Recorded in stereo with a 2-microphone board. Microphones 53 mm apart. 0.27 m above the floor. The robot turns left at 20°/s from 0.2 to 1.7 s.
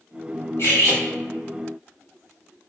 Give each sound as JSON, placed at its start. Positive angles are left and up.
{"t": 0.6, "sound": "cutlery clinking", "side_deg": 60, "distance_m": 1.1}